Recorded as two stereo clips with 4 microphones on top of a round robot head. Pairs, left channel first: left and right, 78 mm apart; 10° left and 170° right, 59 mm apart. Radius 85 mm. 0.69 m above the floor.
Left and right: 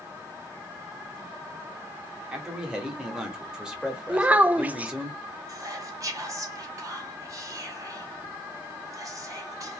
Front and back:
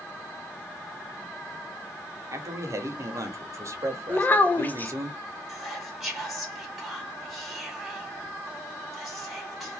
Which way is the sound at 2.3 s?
170° right.